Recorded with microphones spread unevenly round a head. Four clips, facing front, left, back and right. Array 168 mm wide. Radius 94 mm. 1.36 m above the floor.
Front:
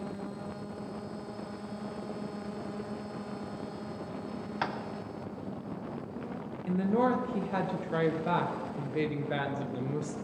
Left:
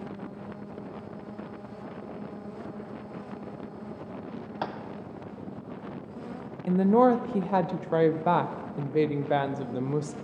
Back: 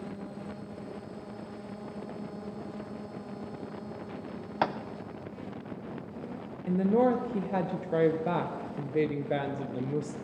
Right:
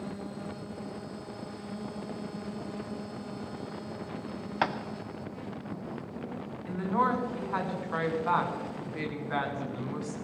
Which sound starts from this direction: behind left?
A woman speaking, at 6.7 s.